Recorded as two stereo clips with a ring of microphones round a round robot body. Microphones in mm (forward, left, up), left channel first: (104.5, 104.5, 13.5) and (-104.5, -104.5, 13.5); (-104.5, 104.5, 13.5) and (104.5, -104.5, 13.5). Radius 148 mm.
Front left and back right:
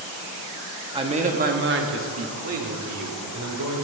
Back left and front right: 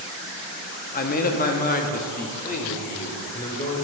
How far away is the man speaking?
About 0.9 m.